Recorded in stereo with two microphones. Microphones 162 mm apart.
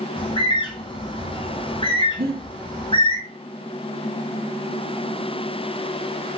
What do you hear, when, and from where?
0.2 s a bird: 35° left (ahead or behind), 0.7 m
2.2 s breathing: 75° right (ahead or behind), 1.6 m